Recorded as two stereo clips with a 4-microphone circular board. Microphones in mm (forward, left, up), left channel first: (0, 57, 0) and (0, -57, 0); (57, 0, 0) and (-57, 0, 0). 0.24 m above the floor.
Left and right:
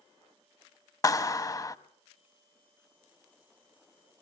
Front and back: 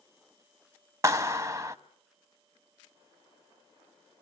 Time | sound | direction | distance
1.0 | a clap | 135° left | 1.0 m